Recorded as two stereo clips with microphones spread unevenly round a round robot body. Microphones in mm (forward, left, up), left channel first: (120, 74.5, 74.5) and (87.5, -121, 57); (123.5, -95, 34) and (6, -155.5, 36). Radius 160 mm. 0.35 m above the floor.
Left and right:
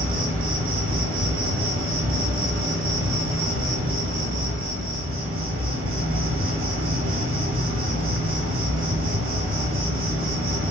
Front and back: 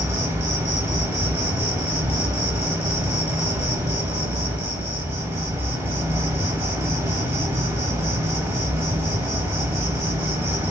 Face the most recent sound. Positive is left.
turn(degrees=-75)